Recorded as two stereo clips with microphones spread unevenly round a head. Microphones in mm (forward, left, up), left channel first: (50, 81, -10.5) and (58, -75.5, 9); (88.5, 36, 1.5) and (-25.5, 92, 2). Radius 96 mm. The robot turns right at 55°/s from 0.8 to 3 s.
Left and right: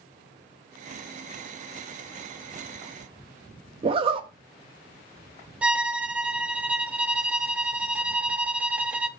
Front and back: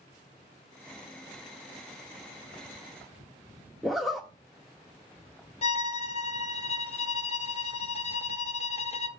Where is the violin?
15° right, 0.7 m.